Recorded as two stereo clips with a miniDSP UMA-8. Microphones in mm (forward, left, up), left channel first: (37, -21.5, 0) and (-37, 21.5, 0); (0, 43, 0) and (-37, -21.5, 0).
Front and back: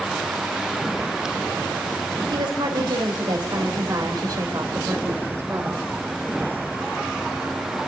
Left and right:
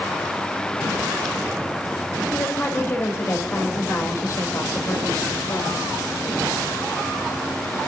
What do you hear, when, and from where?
2.3 s a woman speaking: 125° left, 4 m; by 5.9 s 90° left, 3.5 m